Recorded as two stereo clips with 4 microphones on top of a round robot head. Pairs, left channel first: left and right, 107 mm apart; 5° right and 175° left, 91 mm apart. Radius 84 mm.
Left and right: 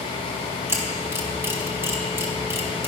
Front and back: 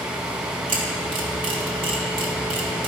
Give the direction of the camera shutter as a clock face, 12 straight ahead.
5 o'clock.